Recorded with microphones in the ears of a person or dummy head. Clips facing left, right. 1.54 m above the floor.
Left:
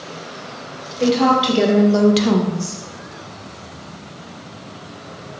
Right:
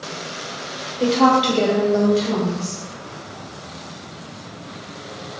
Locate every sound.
1.0 s a woman speaking: 5° right (ahead or behind), 1.5 m; by 2.8 s 60° left (ahead or behind), 1.1 m